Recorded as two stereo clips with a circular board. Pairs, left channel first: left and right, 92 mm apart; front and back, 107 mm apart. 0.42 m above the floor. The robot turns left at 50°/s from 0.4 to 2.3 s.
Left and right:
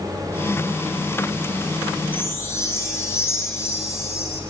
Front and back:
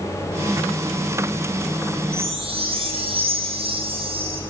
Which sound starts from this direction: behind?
A chime, at 2.1 s.